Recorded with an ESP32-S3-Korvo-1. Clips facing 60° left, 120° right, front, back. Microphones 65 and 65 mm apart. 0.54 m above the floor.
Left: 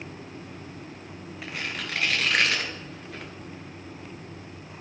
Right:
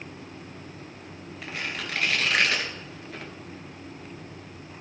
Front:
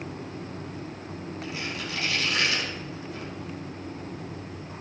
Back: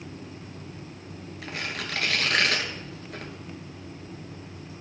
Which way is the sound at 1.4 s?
150° left.